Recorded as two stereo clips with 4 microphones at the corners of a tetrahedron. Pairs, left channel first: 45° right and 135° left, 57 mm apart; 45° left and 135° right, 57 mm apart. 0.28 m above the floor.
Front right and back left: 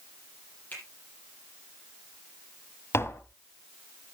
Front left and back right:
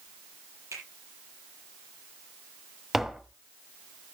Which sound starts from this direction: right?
A finger snap, at 0.7 s.